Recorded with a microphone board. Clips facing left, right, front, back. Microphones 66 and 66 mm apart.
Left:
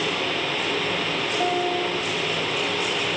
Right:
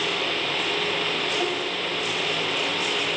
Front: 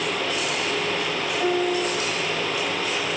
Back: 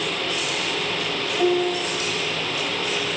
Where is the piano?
175° left, 2.5 m.